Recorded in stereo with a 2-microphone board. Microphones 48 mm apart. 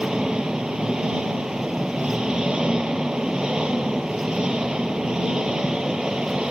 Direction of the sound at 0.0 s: 20° right (ahead or behind).